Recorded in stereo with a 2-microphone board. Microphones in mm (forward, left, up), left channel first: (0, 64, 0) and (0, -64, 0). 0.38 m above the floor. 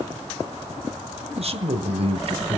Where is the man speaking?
50° right (ahead or behind), 1.6 m.